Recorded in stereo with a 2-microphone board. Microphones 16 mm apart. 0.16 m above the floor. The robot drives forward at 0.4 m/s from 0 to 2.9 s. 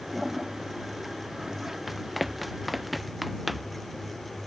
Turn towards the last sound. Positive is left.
turn(degrees=-5)  # may be behind; listen again after turning